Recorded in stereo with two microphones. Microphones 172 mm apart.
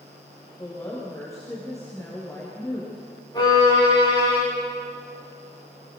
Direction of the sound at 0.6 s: 20° left (ahead or behind).